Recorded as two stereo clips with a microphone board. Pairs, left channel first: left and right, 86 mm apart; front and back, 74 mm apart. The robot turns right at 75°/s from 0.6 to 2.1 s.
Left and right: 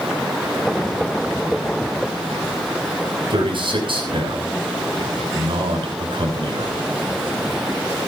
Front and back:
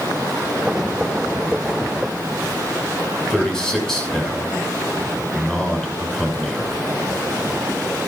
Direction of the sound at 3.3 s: 85° right.